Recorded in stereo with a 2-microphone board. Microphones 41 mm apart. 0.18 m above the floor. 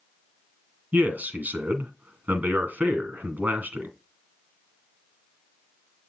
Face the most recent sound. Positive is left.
turn(degrees=-40)  # may be behind; listen again after turning